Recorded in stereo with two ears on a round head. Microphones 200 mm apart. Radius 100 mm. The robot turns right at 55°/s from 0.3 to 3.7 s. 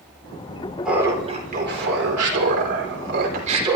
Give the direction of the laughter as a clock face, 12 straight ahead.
6 o'clock.